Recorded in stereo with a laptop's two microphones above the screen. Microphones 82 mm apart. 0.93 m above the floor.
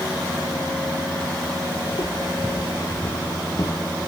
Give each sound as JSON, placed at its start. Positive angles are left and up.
{"t": 1.9, "sound": "footsteps", "side_deg": 60, "distance_m": 2.0}